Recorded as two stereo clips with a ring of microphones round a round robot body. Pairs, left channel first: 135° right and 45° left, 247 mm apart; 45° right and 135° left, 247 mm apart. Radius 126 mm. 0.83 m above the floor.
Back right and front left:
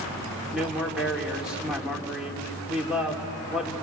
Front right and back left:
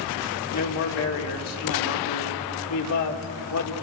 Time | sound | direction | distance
0.5 | a man speaking | 40° right | 3 m